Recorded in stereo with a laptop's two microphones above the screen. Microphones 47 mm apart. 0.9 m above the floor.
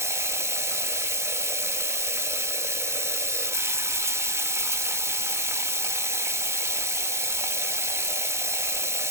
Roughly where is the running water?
Right.